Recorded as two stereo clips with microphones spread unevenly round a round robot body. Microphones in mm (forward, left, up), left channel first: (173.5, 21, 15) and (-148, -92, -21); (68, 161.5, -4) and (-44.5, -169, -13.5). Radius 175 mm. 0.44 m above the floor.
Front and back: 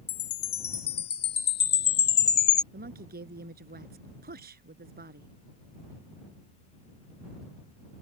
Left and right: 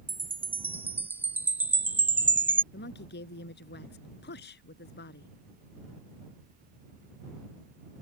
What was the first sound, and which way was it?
A chime, 30° right.